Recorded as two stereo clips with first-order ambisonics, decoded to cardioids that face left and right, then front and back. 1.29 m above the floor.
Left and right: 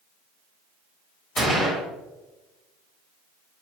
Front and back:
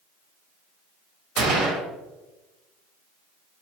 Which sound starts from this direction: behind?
A gunshot, at 1.4 s.